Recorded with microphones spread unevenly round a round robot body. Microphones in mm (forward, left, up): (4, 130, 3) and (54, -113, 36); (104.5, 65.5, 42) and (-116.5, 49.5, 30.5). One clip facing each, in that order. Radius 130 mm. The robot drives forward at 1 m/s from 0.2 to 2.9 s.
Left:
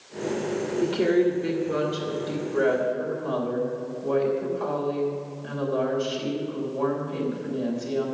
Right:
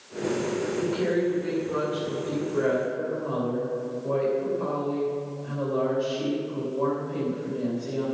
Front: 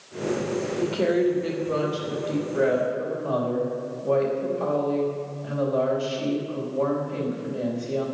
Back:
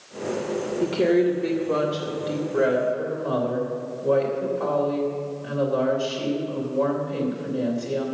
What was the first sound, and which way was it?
A woman speaking, 120° left.